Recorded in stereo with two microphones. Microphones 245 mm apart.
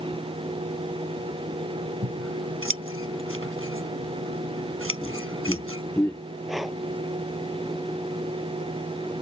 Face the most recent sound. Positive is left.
turn(degrees=0)  # may be behind; listen again after turning